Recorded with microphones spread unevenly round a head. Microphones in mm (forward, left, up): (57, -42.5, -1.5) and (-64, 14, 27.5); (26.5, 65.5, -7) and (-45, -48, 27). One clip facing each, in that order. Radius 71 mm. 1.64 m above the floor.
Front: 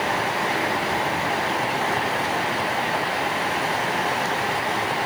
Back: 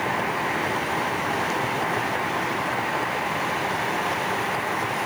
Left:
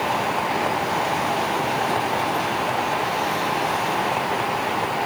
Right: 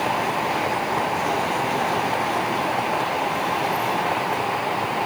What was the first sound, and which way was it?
Only background noise.